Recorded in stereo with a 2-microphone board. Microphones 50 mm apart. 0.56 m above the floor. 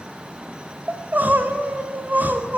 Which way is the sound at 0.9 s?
35° right (ahead or behind).